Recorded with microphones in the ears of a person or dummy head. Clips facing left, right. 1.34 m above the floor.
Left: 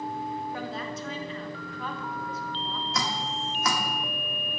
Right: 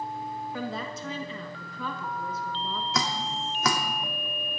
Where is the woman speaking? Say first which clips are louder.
Right 1 dB; 80° right, 1.3 m.